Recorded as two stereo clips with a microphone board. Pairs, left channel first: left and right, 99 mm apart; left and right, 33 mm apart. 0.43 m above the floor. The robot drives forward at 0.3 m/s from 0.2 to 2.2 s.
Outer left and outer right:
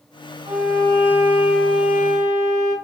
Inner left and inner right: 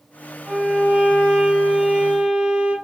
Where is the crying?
I don't hear crying.